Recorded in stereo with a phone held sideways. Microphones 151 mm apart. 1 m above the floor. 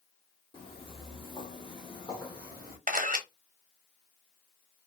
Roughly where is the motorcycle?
No motorcycle in this recording.